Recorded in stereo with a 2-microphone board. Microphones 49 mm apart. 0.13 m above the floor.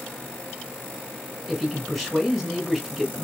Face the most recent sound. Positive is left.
turn(degrees=0)  # may be behind; listen again after turning